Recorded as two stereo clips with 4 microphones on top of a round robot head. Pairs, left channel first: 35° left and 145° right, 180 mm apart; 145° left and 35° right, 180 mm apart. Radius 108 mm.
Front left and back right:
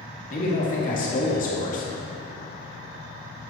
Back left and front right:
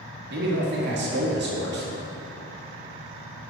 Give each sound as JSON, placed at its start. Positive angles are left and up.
{"t": 0.3, "sound": "a man speaking", "azimuth_deg": -10, "distance_m": 2.0}